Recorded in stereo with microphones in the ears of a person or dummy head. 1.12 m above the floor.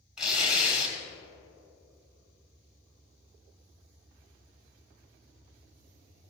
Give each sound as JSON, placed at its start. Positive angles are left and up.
{"t": 0.2, "sound": "tearing paper", "side_deg": -10, "distance_m": 2.0}